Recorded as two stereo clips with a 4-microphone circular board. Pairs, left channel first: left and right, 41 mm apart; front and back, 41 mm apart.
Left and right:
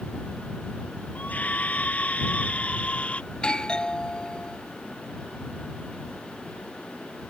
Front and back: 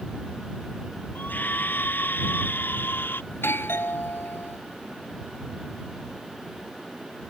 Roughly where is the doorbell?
Ahead.